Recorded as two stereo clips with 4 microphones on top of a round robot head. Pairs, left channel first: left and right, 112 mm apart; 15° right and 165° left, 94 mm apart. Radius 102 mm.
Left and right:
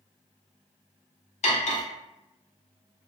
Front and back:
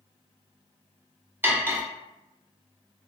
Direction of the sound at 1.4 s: 95° left.